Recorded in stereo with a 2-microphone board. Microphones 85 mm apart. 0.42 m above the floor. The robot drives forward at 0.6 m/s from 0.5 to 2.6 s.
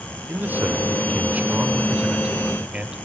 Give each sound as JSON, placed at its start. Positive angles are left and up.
{"t": 0.3, "sound": "a man speaking", "side_deg": -20, "distance_m": 1.1}